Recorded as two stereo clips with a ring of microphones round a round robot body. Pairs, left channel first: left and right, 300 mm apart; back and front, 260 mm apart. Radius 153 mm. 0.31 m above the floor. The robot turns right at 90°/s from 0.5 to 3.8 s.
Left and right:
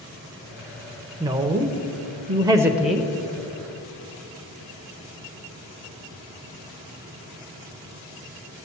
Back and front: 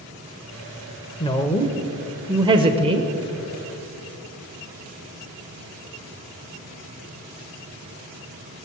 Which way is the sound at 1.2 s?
150° right.